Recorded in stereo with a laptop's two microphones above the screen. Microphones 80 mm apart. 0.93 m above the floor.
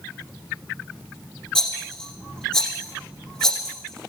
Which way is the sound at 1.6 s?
5° left (ahead or behind).